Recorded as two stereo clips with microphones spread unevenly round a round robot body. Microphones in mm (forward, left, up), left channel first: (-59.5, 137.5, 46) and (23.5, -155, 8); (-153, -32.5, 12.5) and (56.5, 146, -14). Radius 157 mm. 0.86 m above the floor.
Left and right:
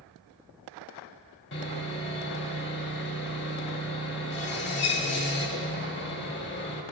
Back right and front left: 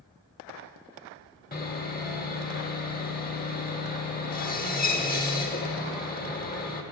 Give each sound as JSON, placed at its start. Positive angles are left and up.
{"t": 1.5, "sound": "sawing", "azimuth_deg": 160, "distance_m": 1.6}